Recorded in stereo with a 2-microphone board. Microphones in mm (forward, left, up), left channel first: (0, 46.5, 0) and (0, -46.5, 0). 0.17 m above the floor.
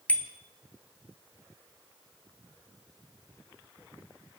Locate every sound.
0.1 s a bicycle bell: 15° left (ahead or behind), 2 m